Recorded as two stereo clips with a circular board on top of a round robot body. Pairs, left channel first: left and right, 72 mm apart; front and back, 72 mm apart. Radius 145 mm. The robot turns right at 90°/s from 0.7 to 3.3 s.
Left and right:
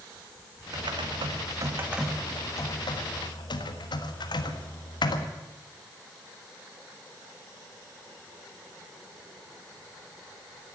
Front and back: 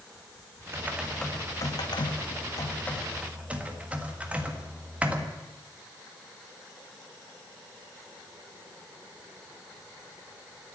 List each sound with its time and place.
0.7 s typing on a keyboard: 125° right, 1.6 m; by 5.3 s 110° left, 1.6 m